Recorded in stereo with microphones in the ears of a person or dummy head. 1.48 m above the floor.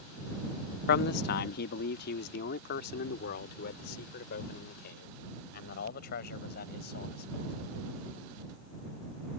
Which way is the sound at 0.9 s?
60° left (ahead or behind).